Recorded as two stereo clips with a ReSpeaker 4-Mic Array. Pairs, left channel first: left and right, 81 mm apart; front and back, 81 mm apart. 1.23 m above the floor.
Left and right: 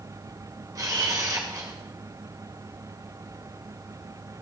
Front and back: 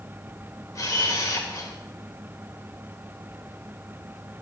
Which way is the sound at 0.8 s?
45° right.